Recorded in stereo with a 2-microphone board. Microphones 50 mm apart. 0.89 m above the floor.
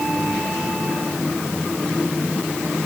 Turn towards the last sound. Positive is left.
No sound to turn to.